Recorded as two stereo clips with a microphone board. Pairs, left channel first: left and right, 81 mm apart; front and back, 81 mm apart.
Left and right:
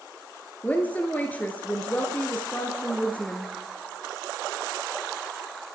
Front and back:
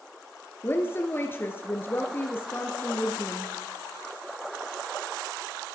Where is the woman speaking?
35° left, 1.7 m.